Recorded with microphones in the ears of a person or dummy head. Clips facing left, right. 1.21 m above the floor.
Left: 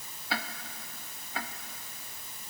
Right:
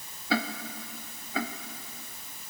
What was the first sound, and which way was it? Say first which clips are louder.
Ticking: right 8 dB; 80° right.